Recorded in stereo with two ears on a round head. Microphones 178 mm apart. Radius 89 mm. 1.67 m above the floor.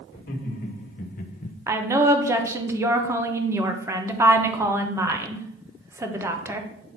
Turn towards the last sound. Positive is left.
turn(degrees=-15)  # may be behind; listen again after turning